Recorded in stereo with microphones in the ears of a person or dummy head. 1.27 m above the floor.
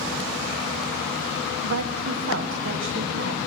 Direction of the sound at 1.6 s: 70° right (ahead or behind).